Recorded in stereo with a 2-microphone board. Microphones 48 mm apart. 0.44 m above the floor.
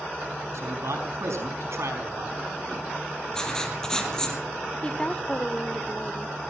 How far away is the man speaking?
About 5 m.